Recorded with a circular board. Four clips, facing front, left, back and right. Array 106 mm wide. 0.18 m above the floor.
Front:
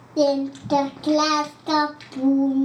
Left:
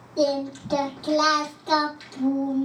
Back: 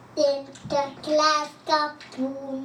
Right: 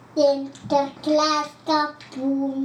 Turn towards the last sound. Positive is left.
turn(degrees=-30)